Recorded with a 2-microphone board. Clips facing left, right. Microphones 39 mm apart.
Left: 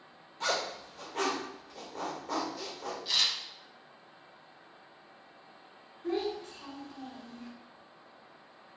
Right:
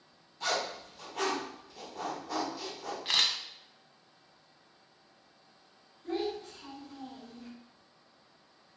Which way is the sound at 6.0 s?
55° left (ahead or behind).